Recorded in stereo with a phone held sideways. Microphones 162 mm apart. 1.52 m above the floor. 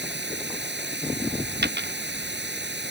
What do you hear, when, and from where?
0.0 s running water: 90° right
1.6 s a dropped coin: 70° right (ahead or behind)